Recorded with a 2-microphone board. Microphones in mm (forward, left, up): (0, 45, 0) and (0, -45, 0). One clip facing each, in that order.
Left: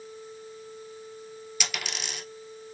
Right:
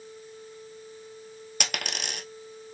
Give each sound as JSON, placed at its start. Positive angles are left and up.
{"t": 1.6, "sound": "a dropped coin", "side_deg": -55, "distance_m": 0.9}